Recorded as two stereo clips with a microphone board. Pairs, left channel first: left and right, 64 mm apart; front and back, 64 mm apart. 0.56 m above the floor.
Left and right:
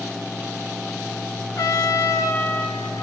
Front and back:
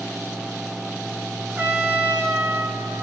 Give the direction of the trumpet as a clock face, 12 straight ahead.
8 o'clock.